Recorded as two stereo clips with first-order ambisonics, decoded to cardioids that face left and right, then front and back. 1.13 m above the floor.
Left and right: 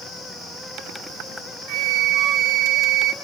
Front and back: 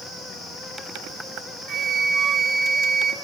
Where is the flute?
120° right, 1.4 m.